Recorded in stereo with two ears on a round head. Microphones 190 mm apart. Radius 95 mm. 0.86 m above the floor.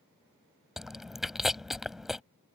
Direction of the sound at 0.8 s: Centre (ahead or behind).